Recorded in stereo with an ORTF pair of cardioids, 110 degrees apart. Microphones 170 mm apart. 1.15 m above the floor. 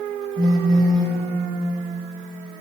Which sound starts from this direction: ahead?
A phone buzzing, at 0.4 s.